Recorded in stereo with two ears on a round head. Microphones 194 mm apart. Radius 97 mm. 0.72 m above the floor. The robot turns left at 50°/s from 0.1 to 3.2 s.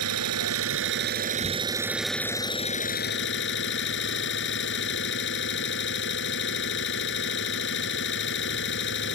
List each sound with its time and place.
0.0 s an engine running: 80° right; by 9.2 s 125° left